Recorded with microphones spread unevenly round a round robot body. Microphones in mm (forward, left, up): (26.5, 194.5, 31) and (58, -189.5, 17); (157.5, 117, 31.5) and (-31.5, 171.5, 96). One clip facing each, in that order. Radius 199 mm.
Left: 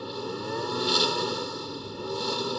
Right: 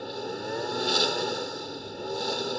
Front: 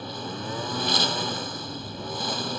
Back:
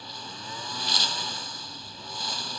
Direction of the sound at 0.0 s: 15° left.